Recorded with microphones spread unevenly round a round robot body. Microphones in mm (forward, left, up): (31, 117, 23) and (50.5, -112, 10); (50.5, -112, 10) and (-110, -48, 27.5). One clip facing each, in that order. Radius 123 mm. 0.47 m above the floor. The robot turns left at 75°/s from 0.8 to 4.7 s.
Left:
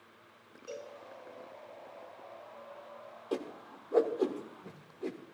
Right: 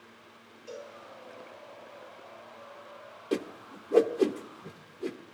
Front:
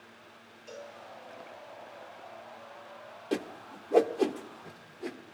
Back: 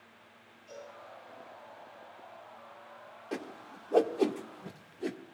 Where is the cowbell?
15° right, 8 m; by 0.9 s 25° right, 8 m.